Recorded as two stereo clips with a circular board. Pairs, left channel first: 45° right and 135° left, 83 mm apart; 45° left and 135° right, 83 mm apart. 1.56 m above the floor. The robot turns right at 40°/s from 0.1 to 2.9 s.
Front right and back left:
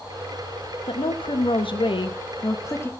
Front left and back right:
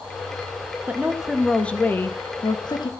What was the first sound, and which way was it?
A woman speaking, 65° right.